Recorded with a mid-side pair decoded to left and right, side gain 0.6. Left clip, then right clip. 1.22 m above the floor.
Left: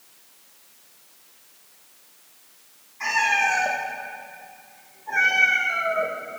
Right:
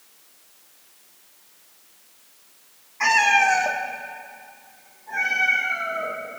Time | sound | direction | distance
3.0 | a cat meowing | 45° right | 1.6 m